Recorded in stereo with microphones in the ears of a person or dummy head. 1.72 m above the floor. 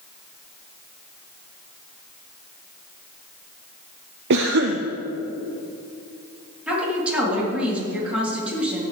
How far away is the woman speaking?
About 3.5 m.